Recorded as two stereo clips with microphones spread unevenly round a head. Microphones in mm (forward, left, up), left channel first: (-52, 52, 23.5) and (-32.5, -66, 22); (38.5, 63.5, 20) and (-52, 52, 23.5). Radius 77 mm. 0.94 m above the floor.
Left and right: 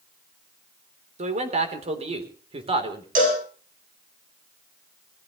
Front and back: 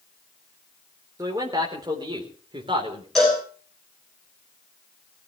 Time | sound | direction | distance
1.2 | a man speaking | 105° right | 3.5 m
3.1 | a cowbell | 80° right | 7.5 m